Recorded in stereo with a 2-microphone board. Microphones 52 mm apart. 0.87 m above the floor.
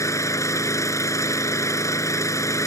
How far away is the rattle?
I don't hear a rattle.